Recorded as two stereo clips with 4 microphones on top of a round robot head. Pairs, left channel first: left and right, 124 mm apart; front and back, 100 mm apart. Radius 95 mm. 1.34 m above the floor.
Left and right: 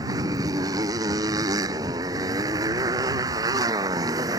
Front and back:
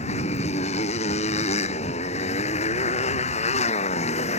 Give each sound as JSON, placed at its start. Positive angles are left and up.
{"t": 0.0, "sound": "a motorcycle", "azimuth_deg": -20}